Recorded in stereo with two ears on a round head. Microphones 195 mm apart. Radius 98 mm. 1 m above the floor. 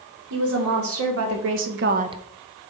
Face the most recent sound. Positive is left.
turn(degrees=-5)  # may be behind; listen again after turning